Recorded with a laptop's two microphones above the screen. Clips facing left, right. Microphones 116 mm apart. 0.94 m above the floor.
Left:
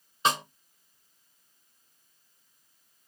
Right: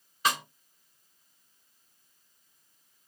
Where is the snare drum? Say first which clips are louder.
Left 2 dB; 25° left (ahead or behind), 0.7 m.